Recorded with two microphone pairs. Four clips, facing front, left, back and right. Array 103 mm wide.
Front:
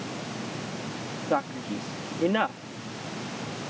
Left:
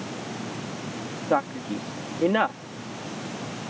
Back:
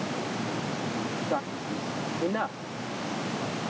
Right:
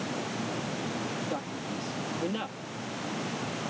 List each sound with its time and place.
1.3 s a man speaking: 85° left